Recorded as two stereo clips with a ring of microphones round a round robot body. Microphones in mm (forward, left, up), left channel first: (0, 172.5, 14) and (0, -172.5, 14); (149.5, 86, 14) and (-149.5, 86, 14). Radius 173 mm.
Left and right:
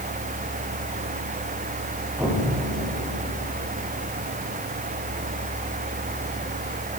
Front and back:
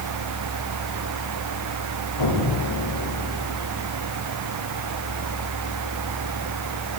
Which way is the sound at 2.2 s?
5° right.